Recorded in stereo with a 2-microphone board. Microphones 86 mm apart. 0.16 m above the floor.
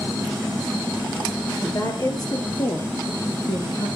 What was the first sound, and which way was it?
A woman speaking, 40° left (ahead or behind).